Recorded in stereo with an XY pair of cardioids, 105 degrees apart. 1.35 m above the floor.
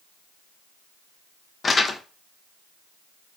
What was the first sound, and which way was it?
Crumpling, 35° left.